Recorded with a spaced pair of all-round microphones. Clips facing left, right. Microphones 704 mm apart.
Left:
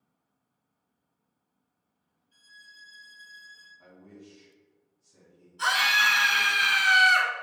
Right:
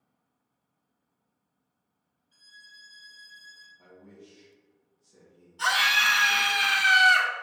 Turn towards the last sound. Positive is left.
turn(degrees=-30)  # may be behind; listen again after turning